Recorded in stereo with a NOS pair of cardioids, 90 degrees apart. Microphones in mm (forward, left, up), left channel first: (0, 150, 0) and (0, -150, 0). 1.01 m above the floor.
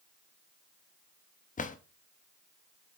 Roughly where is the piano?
I don't hear a piano.